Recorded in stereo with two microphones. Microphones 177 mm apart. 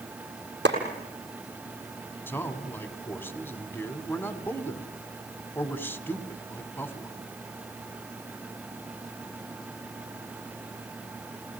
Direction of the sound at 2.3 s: 10° left (ahead or behind).